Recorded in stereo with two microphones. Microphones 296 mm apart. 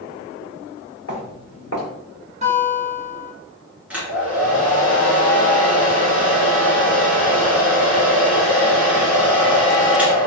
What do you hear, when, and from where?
1.1 s footsteps: 50° left (ahead or behind), 1.8 m
2.4 s a guitar: 20° right (ahead or behind), 1.3 m
3.9 s a hair dryer: 5° right (ahead or behind), 1.5 m